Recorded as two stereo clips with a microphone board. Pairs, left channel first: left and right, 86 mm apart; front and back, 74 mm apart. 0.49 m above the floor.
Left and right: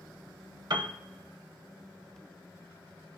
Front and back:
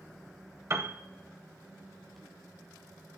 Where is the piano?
125° right, 0.7 m.